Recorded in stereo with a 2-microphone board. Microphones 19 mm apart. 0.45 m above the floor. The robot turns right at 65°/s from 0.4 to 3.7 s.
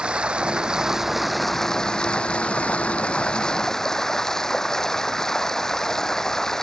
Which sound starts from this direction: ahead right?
Running water, at 0.0 s.